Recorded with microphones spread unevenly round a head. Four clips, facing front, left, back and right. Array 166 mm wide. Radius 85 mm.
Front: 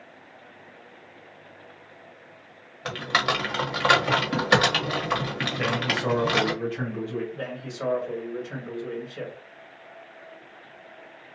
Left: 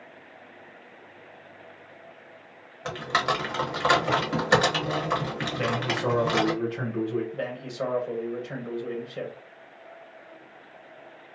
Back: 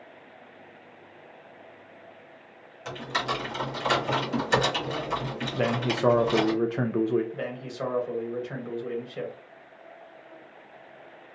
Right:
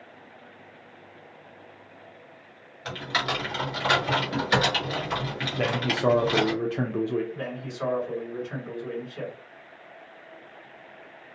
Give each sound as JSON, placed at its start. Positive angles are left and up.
{"t": 2.9, "sound": "typing on a keyboard", "azimuth_deg": 35, "distance_m": 0.9}
{"t": 5.5, "sound": "a man speaking", "azimuth_deg": -155, "distance_m": 0.5}
{"t": 7.3, "sound": "a man speaking", "azimuth_deg": 120, "distance_m": 1.2}